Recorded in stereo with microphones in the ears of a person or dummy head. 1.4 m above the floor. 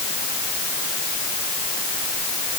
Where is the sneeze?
No sneeze in this recording.